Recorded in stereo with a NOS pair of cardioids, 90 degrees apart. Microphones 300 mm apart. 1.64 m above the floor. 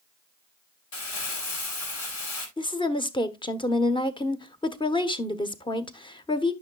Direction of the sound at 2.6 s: 15° left.